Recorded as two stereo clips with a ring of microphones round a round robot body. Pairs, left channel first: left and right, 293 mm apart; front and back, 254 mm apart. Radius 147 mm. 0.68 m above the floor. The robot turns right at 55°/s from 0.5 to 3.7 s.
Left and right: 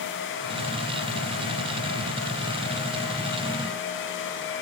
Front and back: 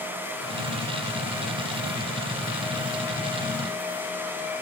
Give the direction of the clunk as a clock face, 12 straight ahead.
No clunk in this recording.